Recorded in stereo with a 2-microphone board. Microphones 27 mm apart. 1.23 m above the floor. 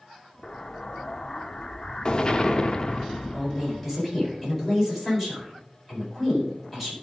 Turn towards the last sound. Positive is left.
turn(degrees=-10)  # may be behind; listen again after turning